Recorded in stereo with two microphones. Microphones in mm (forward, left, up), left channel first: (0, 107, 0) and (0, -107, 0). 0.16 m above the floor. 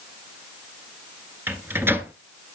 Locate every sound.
1.5 s a microwave: 10° right (ahead or behind), 1.5 m